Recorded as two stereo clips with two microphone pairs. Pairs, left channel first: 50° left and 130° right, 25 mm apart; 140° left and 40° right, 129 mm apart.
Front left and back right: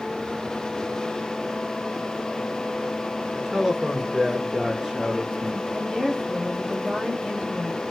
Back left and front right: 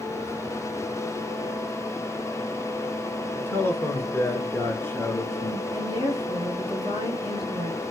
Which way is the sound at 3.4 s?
160° left.